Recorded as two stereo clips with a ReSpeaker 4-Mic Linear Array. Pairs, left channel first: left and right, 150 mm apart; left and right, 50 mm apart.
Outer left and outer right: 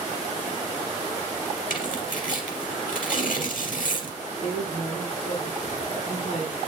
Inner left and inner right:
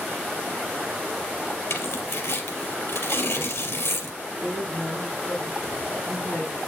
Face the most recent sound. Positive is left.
turn(degrees=50)  # may be behind; listen again after turning